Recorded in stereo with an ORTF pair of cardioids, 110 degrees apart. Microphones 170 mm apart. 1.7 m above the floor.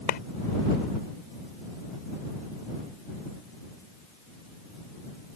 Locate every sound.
0.1 s a clap: 65° left